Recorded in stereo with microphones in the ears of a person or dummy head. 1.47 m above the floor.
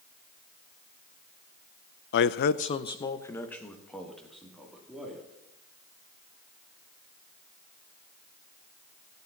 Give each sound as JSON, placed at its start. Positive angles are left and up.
{"t": 2.1, "sound": "a man speaking", "side_deg": 60, "distance_m": 0.6}